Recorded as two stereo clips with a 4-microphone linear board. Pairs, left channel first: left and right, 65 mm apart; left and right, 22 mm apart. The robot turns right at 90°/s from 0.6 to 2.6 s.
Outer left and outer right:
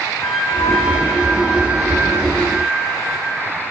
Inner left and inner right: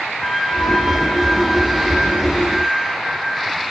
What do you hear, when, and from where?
0.2 s a flute: 120° left, 1.7 m; by 3.2 s 60° right, 1.7 m